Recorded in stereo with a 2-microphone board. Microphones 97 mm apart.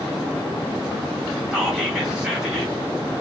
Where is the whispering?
10° right (ahead or behind), 1.0 m.